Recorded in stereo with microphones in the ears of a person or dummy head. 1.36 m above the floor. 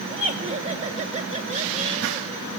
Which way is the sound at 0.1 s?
30° right (ahead or behind).